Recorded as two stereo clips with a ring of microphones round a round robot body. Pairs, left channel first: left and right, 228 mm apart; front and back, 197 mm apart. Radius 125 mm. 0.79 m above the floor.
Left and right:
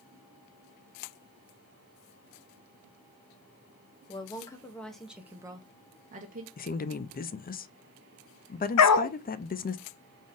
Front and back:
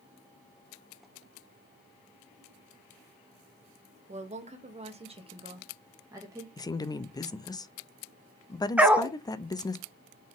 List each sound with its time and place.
4.1 s a woman speaking: 145° left, 1.2 m; by 6.5 s 110° right, 1.2 m
6.6 s a woman speaking: 65° left, 0.6 m
8.8 s a dog barking: 95° left, 0.6 m